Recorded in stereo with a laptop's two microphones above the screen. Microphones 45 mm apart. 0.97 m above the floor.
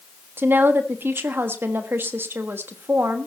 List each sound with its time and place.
0.4 s a woman speaking: 55° right (ahead or behind), 1.3 m